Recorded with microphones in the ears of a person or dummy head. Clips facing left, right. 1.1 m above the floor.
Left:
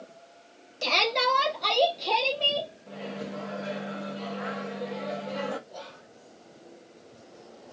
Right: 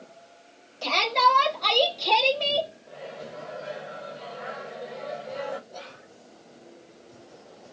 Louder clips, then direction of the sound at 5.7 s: Even; 25° right (ahead or behind).